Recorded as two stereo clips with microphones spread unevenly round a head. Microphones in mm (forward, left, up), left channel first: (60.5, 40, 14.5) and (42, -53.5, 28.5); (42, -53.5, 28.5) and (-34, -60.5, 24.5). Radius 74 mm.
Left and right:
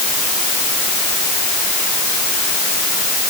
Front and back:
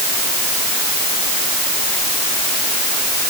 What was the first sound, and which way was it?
Only background noise.